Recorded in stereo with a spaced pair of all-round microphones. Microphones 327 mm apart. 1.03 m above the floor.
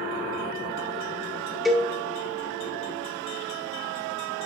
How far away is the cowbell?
About 1.3 m.